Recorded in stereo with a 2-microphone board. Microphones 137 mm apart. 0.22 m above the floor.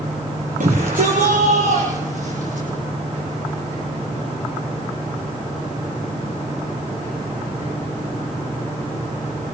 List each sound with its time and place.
0.6 s a shout: 80° right, 7 m